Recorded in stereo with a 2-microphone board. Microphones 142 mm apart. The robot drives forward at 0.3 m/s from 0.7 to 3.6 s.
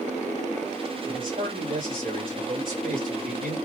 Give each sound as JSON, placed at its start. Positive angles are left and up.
{"t": 1.1, "sound": "a man speaking", "side_deg": -75, "distance_m": 1.9}